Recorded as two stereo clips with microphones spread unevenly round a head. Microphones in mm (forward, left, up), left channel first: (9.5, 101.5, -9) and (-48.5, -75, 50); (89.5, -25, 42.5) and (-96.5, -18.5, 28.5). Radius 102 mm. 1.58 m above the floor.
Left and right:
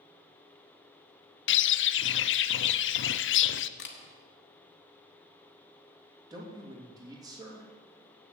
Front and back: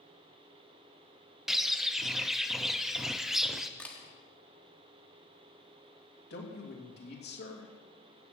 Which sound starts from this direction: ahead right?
A man speaking, at 6.3 s.